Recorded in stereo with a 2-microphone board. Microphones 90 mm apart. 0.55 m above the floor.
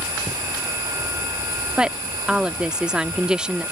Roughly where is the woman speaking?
Centre.